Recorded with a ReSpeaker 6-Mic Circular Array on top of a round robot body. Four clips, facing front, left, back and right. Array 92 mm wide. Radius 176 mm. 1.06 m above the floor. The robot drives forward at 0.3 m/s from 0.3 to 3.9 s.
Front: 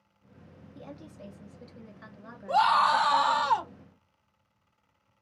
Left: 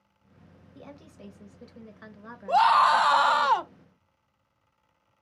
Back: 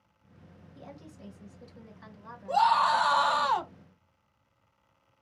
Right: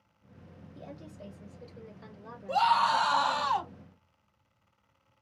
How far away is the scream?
About 0.7 m.